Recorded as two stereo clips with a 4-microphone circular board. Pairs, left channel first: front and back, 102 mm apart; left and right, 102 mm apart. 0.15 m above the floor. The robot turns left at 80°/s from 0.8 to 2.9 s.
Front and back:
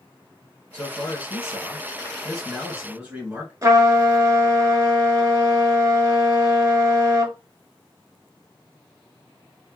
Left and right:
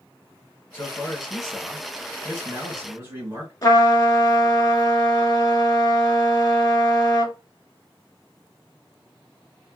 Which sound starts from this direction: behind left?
A trumpet, at 3.6 s.